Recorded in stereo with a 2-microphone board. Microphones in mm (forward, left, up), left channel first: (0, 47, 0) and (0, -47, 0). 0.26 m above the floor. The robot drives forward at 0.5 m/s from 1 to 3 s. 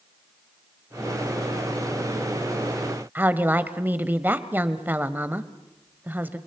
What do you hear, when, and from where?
3.1 s a woman speaking: 20° right (ahead or behind), 0.9 m